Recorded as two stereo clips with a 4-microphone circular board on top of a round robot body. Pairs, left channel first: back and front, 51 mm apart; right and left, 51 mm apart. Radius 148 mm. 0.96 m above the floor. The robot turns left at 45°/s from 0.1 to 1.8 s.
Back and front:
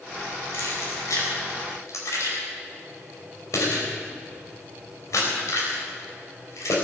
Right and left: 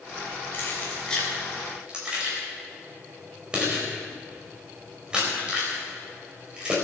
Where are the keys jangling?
145° right, 4.5 m; by 6.7 s 160° left, 4.5 m.